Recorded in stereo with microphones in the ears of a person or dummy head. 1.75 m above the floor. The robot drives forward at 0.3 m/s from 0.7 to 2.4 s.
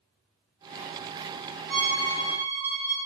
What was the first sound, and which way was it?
A violin, 5° left (ahead or behind).